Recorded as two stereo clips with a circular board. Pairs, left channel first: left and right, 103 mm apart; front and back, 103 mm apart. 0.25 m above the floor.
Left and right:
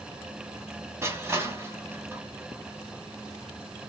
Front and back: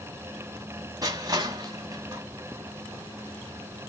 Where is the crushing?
145° right, 1.6 m.